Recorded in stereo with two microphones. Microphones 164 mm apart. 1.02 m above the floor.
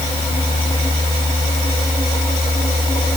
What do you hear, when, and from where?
Only background noise.